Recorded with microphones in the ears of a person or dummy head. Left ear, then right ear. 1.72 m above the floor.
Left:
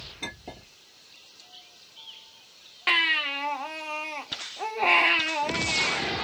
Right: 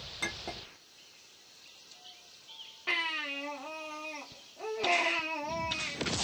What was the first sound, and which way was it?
A clink, 55° right (ahead or behind).